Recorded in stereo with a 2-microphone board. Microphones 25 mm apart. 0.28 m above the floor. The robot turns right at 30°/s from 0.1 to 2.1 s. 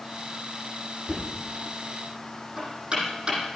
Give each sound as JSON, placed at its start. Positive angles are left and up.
{"t": 1.1, "sound": "knocking", "side_deg": 0, "distance_m": 8.0}